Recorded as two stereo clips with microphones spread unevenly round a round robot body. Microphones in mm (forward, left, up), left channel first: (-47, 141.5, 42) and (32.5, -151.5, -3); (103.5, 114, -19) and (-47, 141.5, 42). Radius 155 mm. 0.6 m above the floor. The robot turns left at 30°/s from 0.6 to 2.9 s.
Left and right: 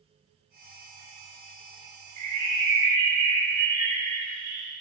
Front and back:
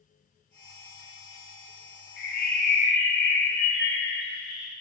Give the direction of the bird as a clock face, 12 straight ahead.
12 o'clock.